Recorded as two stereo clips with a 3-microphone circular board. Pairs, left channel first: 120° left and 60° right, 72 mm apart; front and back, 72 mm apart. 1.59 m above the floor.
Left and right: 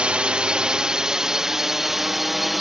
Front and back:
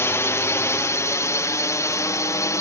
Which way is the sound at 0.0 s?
5° left.